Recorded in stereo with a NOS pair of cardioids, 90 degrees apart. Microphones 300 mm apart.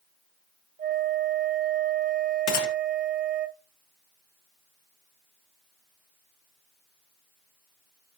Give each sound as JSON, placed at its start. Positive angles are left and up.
{"t": 0.8, "sound": "a flute", "azimuth_deg": -30, "distance_m": 0.6}
{"t": 2.5, "sound": "a gunshot", "azimuth_deg": 60, "distance_m": 1.0}